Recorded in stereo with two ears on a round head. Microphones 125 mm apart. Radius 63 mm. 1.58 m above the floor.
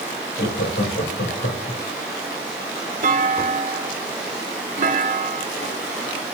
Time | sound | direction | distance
0.4 | laughter | 85° left | 3.5 m
3.0 | a clunk | 55° right (ahead or behind) | 1.6 m